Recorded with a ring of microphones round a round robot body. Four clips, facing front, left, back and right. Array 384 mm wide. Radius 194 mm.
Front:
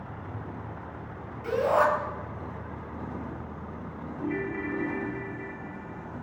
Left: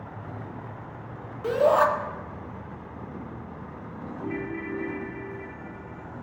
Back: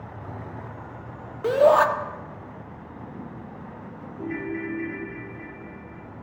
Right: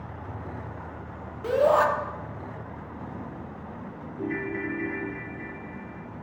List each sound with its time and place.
1.4 s a shout: straight behind, 1.5 m
4.2 s a ringtone: 115° right, 2.5 m